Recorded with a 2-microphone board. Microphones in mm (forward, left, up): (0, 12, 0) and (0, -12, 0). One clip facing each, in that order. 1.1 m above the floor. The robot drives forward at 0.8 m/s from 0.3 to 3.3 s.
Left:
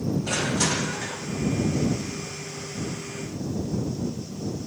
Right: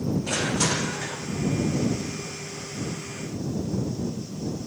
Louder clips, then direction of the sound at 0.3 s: Even; centre (ahead or behind).